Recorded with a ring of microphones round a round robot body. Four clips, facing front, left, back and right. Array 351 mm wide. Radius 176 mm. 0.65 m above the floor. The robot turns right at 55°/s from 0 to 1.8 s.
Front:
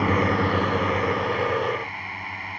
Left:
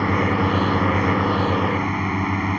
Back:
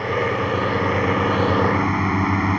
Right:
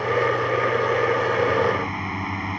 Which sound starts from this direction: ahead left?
A drone, at 0.0 s.